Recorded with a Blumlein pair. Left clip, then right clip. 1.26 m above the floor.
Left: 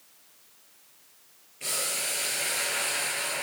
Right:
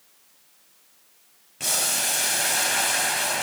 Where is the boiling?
50° right, 0.8 m.